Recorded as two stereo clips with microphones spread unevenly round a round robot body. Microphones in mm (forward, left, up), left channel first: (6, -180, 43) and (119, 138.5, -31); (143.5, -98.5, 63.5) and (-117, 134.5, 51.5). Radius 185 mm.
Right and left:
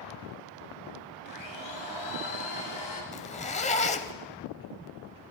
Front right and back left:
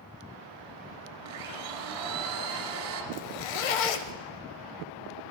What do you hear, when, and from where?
1.2 s a blender: 170° right, 1.3 m
3.1 s a zipper: 45° right, 0.5 m